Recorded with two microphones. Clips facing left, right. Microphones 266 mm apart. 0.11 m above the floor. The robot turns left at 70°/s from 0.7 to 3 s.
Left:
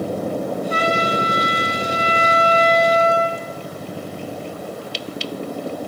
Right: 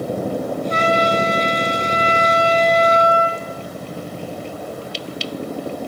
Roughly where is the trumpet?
Behind left.